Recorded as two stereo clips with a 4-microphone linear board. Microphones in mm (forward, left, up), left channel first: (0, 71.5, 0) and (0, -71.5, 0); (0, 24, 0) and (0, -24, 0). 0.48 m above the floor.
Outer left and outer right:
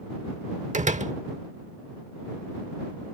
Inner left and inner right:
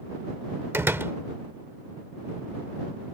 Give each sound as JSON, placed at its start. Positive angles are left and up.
{"t": 0.7, "sound": "a door slam", "side_deg": -55}